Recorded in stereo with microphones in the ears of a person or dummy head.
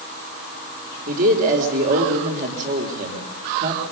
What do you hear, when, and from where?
1.1 s a man speaking: 45° right (ahead or behind), 4 m